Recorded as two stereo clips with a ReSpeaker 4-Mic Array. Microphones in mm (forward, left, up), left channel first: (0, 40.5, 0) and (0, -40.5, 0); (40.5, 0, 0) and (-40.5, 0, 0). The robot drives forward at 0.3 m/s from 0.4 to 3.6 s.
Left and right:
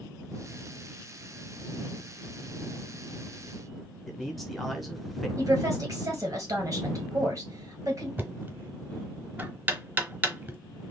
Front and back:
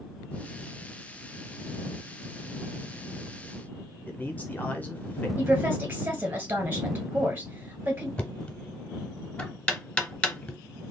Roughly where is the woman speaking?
Behind right.